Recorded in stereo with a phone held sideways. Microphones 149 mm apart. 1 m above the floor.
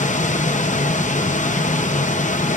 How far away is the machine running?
About 0.7 m.